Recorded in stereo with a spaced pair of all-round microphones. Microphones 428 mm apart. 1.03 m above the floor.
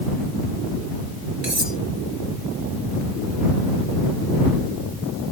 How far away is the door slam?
I don't hear a door slam.